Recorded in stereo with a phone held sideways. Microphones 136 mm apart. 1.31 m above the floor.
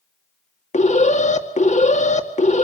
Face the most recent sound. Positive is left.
turn(degrees=60)  # may be behind; listen again after turning